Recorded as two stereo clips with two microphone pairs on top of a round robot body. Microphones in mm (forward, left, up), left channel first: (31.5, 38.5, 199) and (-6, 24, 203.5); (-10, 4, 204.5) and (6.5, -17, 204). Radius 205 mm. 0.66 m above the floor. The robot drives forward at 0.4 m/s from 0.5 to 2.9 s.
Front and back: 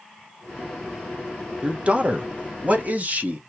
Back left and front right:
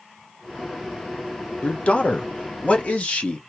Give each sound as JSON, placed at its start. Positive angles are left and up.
{"t": 1.6, "sound": "a man speaking", "azimuth_deg": 135, "distance_m": 1.1}